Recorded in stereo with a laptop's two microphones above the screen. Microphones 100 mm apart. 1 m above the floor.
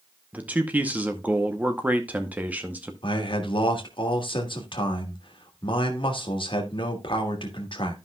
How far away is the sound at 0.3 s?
About 0.8 m.